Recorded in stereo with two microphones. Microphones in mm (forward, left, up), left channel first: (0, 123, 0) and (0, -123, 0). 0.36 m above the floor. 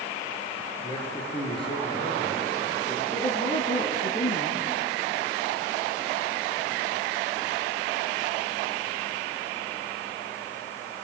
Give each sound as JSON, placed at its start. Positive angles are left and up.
{"t": 0.8, "sound": "a man speaking", "side_deg": 20, "distance_m": 6.5}
{"t": 3.1, "sound": "a woman speaking", "side_deg": 30, "distance_m": 3.5}